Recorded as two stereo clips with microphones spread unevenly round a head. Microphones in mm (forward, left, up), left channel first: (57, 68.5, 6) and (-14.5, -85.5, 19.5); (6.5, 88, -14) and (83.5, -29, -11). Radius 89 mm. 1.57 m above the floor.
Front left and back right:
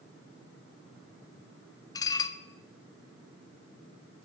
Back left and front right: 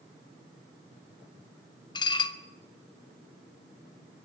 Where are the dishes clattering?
125° left, 0.8 m.